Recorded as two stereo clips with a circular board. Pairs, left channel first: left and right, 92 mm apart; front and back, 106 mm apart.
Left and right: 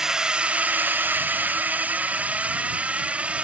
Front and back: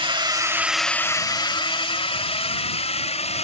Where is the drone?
170° right; by 3.4 s 15° right.